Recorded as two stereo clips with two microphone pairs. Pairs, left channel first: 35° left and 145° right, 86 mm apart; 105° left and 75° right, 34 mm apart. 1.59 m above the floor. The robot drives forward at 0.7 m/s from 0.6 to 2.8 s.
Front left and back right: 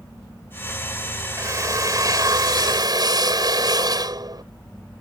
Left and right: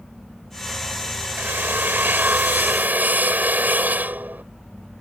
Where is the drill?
90° right; by 4.4 s 105° right.